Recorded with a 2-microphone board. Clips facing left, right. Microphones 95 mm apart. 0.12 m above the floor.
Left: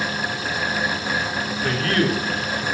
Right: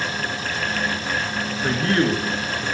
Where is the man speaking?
20° right (ahead or behind), 1.4 m; by 2.6 s 35° right (ahead or behind), 1.6 m.